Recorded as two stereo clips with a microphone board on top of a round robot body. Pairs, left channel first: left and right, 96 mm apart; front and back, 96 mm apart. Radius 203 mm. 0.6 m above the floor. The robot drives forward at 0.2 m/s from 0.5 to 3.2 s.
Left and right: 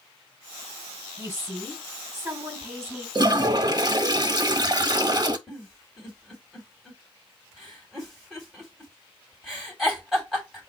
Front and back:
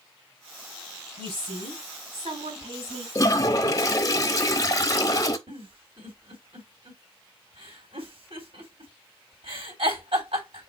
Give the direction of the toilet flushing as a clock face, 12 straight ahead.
2 o'clock.